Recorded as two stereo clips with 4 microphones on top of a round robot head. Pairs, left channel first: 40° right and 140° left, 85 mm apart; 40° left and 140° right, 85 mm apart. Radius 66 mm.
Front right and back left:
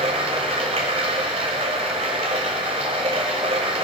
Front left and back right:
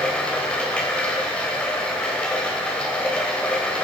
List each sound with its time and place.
0.0 s running water: 115° left, 1.3 m